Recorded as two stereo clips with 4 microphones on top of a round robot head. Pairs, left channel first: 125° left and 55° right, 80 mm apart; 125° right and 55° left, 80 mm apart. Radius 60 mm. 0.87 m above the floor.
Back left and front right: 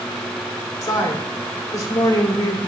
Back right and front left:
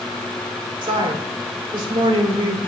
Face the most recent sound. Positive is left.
turn(degrees=75)